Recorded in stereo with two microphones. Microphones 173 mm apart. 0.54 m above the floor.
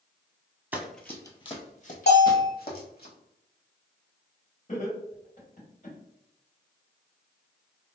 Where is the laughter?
50° left (ahead or behind), 1.9 m.